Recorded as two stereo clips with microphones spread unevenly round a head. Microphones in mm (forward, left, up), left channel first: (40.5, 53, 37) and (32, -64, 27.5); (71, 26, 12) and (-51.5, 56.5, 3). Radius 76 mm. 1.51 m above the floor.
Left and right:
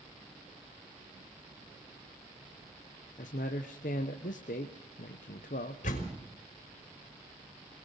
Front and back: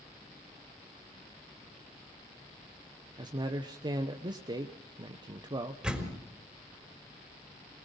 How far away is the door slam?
About 4 m.